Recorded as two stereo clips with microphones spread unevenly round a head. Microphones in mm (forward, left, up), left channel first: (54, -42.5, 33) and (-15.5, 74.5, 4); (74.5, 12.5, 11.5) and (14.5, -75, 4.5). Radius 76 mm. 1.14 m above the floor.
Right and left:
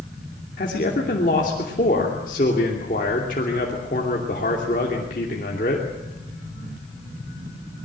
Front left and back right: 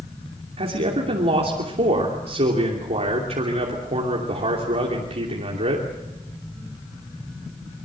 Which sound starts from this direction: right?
A man speaking, at 0.6 s.